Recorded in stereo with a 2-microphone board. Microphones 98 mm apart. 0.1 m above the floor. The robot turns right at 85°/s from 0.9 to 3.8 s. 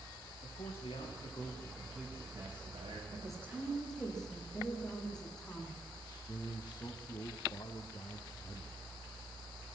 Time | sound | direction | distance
0.4 | a man speaking | 95° left | 6.5 m
3.1 | a woman speaking | 50° right | 8 m
6.0 | a man speaking | 45° left (ahead or behind) | 3 m